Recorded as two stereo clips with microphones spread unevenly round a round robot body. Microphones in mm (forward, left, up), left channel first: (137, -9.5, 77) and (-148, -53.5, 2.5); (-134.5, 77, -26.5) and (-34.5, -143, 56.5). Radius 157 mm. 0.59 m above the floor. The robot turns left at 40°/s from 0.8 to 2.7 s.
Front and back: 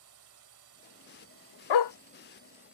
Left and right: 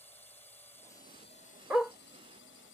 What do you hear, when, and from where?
0.0 s a drone: 175° right; by 2.7 s 110° left
1.7 s a dog barking: 25° left; by 1.9 s 20° left